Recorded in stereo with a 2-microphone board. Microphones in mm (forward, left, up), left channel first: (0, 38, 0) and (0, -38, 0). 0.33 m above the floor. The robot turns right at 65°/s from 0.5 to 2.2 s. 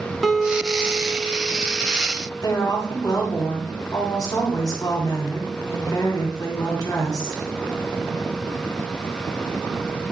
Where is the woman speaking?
55° left (ahead or behind), 2.5 m.